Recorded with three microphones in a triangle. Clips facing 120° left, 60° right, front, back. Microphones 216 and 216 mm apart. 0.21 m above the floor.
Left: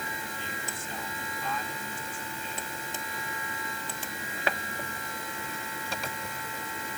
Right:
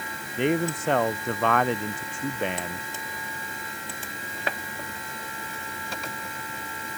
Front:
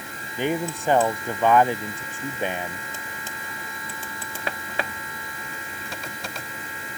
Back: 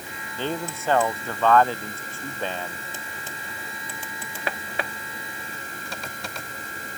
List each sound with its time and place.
0.4 s a man speaking: 75° right